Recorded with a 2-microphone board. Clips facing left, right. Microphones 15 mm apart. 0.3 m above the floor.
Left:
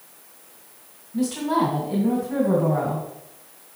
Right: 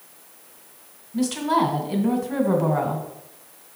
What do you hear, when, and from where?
1.1 s a woman speaking: 35° right (ahead or behind), 2.0 m